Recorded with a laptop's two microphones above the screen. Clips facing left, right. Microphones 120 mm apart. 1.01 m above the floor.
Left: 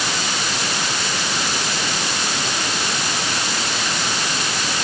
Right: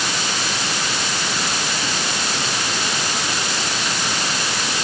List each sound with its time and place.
Only background noise.